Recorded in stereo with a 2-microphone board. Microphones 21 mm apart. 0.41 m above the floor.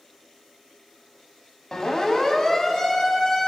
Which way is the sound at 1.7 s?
35° left (ahead or behind).